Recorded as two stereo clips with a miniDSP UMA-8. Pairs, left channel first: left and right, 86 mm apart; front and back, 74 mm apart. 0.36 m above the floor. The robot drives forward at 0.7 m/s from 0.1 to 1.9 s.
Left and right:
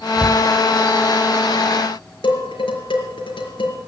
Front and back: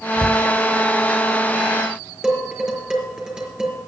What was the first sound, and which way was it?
A cupboard door, 25° right.